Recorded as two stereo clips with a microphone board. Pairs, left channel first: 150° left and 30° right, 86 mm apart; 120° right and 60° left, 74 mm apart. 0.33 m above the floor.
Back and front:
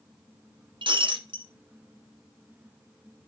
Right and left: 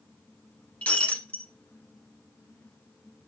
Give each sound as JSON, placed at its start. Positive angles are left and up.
{"t": 0.8, "sound": "breaking glass", "azimuth_deg": -45, "distance_m": 1.5}